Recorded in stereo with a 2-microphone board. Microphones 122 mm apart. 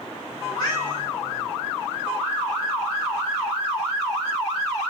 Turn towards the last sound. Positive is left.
turn(degrees=35)  # may be behind; listen again after turning